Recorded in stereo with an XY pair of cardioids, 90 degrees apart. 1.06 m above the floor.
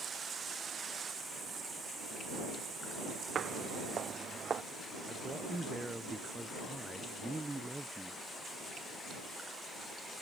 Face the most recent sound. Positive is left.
turn(degrees=-15)